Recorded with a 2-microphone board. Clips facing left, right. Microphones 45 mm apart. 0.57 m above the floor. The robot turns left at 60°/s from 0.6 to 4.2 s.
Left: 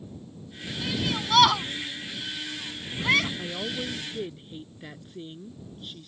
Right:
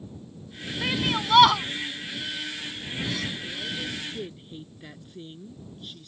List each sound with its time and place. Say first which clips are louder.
0.8 s a shout: right 3 dB; 50° right (ahead or behind); by 3.3 s 75° left (ahead or behind)
3.4 s a woman speaking: left 1 dB; 60° left; by 6.1 s 10° left